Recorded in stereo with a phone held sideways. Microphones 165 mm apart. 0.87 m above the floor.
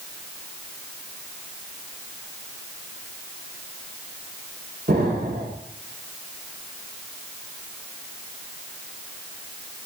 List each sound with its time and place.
4.9 s an explosion: 65° right (ahead or behind), 3 m